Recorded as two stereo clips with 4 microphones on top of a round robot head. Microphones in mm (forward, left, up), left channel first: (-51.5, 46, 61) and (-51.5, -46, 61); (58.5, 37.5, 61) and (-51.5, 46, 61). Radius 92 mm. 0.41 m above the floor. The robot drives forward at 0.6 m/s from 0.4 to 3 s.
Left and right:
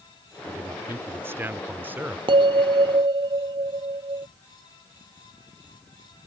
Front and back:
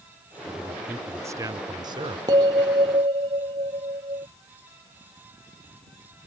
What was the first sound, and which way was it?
A man speaking, 105° right.